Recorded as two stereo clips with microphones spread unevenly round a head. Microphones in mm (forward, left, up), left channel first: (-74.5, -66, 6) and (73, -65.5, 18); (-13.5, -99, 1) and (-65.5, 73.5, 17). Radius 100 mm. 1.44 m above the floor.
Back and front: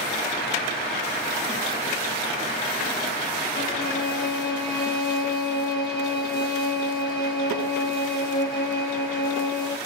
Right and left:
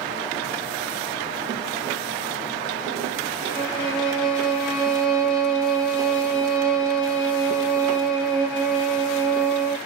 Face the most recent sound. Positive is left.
turn(degrees=-165)